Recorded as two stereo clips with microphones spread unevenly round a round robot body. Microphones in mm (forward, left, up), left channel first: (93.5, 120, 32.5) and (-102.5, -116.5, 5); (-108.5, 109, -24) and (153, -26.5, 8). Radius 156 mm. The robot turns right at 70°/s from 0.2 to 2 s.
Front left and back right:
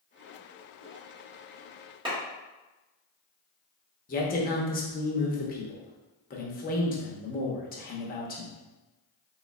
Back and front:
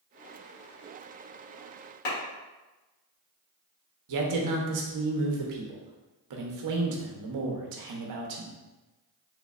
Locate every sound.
2.0 s a clap: 155° left, 1.7 m
4.1 s a man speaking: 10° right, 0.8 m